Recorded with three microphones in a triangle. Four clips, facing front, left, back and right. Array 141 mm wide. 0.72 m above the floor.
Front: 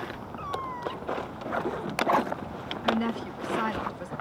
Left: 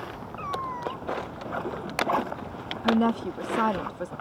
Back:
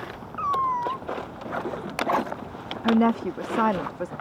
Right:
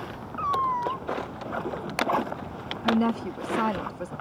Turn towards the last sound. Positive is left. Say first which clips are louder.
# left 1 dB, back 7 dB
turn(degrees=170)